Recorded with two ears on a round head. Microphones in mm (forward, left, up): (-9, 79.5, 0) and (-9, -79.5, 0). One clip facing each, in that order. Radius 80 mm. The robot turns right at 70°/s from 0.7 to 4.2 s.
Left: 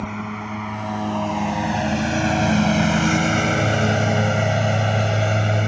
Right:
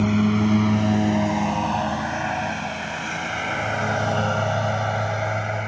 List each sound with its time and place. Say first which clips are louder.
0.0 s a lawn mower: right 10 dB; 40° right (ahead or behind); by 5.7 s 45° left (ahead or behind)